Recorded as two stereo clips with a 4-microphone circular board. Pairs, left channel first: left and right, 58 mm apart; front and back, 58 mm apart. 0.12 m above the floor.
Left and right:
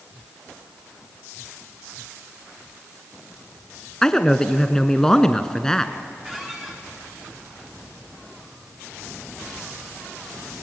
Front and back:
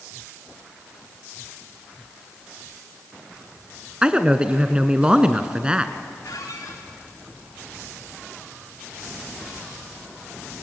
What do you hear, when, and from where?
4.0 s a man speaking: 150° left, 1.2 m
6.2 s a squeak: 10° right, 4.5 m